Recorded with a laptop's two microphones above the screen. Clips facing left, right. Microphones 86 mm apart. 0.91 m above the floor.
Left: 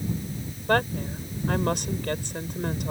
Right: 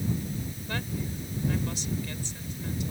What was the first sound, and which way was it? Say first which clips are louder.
A woman speaking: left 12 dB; 65° left (ahead or behind).